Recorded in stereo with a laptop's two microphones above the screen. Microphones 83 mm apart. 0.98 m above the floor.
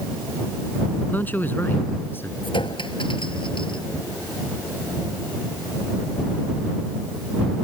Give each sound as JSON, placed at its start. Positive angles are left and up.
{"t": 1.1, "sound": "a man speaking", "side_deg": 20}
{"t": 2.4, "sound": "a clink", "side_deg": 90}